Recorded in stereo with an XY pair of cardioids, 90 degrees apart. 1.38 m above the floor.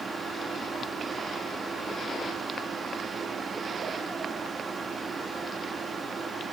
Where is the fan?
40° right, 2.5 m.